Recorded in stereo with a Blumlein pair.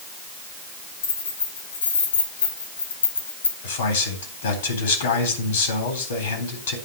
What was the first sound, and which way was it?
Keys jangling, 65° left.